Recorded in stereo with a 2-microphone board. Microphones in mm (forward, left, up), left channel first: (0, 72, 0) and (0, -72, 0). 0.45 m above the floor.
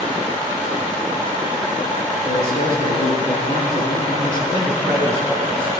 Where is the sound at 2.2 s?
80° left, 6.5 m.